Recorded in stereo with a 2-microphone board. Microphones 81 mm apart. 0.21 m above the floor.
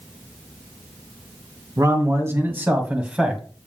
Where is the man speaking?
40° right (ahead or behind), 2 m; by 3.4 s 5° right (ahead or behind), 1.7 m.